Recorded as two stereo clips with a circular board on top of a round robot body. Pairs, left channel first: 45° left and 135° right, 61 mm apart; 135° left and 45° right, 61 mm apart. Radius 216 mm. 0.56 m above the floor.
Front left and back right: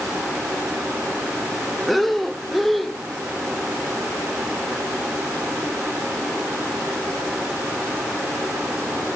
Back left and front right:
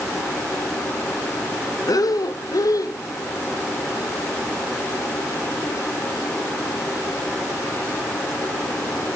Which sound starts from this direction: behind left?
Breathing, at 1.9 s.